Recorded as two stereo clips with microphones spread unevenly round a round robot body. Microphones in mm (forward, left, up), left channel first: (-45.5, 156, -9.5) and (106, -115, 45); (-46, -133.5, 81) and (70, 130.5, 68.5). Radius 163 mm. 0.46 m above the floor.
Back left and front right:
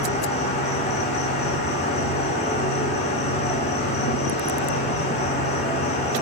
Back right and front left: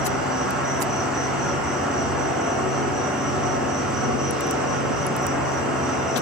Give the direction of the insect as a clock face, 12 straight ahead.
7 o'clock.